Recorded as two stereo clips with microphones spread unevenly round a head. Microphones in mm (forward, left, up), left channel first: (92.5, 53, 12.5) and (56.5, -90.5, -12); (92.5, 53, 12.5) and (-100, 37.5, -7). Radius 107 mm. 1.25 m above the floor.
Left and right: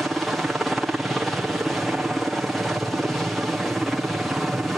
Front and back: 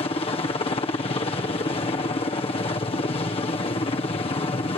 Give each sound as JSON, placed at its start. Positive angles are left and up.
{"t": 0.0, "sound": "a helicopter", "azimuth_deg": -35}